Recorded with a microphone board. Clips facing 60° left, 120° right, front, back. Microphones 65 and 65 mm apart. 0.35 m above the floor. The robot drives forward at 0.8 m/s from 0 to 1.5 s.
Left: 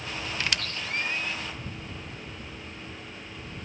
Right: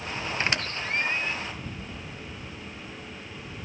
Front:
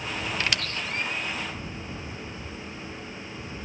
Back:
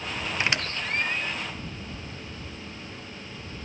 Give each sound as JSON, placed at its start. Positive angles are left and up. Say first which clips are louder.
{"t": 0.4, "sound": "a squeak", "louder": "right 3 dB, back 1 dB", "azimuth_deg": -130, "distance_m": 0.7}